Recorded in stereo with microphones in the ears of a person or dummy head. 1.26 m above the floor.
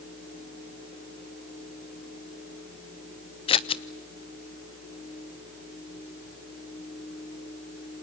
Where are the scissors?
25° left (ahead or behind), 0.6 m.